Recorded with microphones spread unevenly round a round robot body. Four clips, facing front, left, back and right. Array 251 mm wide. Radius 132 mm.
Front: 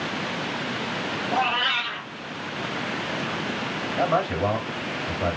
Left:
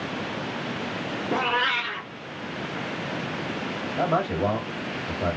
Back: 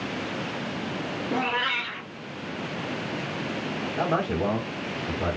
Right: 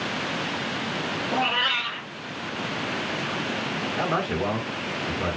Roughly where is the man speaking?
Behind.